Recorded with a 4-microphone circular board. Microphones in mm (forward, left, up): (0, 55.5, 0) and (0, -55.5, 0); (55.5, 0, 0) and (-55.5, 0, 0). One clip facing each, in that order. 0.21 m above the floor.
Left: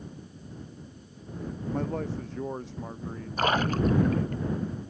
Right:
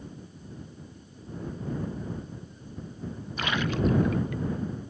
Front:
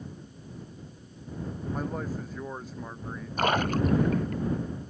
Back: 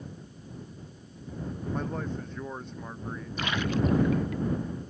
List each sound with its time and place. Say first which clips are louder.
1.7 s a man speaking: left 6 dB, even; 85° left; by 4.4 s 95° left
3.4 s a splash: left 3 dB, front 3 dB; 40° left